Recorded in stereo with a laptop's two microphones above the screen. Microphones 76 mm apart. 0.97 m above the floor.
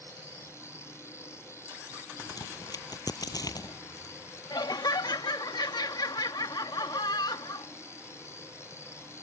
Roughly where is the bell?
I don't hear a bell.